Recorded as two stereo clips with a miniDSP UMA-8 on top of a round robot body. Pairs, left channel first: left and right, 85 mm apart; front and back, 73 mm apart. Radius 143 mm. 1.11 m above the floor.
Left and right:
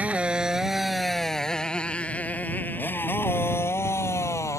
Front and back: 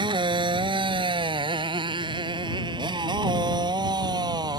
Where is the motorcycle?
165° right; by 4.6 s 145° left.